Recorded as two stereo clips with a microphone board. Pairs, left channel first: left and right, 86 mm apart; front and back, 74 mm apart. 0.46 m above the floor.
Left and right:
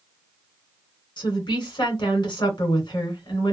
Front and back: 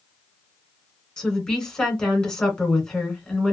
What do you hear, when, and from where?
1.2 s a woman speaking: 75° left, 2 m